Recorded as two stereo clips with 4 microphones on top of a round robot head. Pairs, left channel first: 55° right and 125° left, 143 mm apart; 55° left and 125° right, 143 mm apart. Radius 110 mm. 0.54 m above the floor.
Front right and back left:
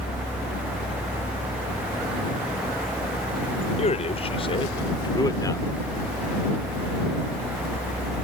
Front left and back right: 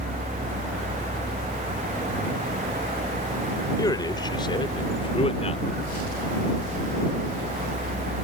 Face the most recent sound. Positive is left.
turn(degrees=15)